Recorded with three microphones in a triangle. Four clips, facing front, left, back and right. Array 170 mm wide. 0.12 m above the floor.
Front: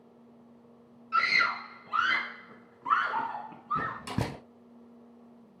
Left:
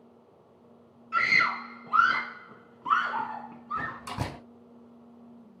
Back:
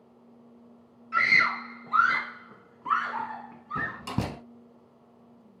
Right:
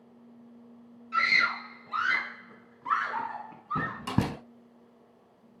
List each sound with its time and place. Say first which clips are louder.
1.1 s a scream: left 1 dB, back 2 dB; 140° left, 2.5 m; by 4.0 s 10° right, 1.7 m
3.8 s a door slam: right 5 dB, back 2 dB; 100° right, 5 m